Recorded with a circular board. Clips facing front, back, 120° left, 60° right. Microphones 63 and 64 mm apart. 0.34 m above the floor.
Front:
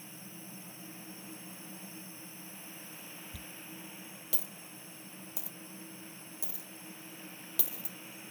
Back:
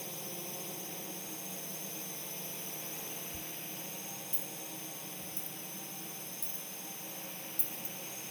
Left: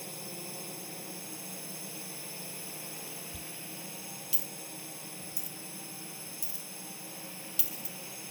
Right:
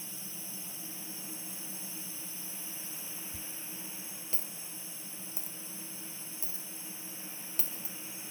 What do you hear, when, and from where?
0.0 s a drone: 155° left
3.3 s a dropped coin: straight ahead